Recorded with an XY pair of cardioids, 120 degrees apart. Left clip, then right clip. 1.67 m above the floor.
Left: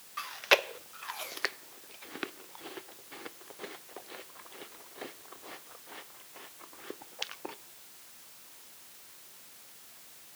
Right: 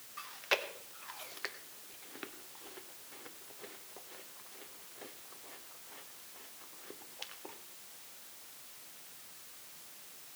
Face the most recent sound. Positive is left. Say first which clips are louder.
# left 8 dB
turn(degrees=45)